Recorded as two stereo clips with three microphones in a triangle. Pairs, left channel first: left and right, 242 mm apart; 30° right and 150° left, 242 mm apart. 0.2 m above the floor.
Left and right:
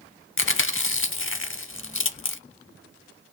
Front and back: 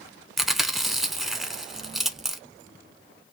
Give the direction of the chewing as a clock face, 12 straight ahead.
10 o'clock.